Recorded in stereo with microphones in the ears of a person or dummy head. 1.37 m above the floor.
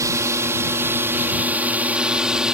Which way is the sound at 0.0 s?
10° right (ahead or behind).